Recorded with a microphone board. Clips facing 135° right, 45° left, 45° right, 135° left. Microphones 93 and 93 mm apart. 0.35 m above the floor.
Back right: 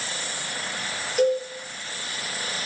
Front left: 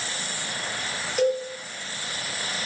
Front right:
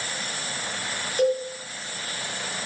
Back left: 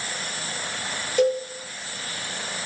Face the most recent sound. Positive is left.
turn(degrees=135)